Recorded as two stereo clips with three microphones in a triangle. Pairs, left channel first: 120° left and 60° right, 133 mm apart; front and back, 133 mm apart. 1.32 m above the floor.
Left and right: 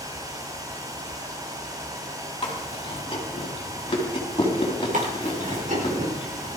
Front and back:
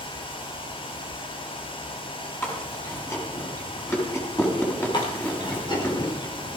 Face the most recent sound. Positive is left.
turn(degrees=-55)